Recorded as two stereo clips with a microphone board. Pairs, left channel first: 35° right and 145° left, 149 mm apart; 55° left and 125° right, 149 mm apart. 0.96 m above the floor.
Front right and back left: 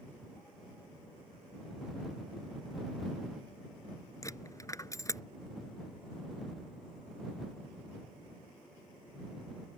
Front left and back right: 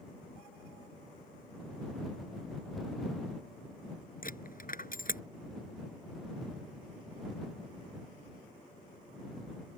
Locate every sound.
4.2 s a dropped coin: 35° left